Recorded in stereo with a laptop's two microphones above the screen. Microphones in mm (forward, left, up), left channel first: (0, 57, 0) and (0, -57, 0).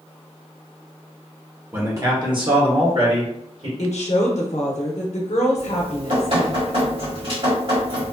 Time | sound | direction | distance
1.7 | a man speaking | 20° right (ahead or behind) | 0.8 m
3.8 | a woman speaking | 75° left (ahead or behind) | 0.6 m
5.6 | dripping | 55° right (ahead or behind) | 1.7 m